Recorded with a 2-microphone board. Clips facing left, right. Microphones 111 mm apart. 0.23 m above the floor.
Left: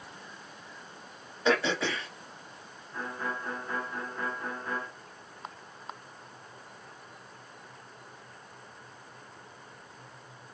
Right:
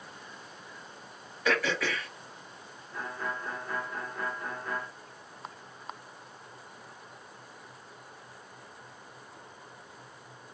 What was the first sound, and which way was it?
Throat clearing, 25° left (ahead or behind).